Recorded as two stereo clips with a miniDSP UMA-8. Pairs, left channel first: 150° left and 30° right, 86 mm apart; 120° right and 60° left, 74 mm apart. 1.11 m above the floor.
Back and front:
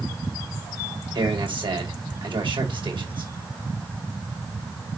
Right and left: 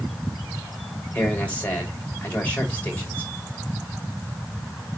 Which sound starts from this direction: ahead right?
A man speaking, at 1.1 s.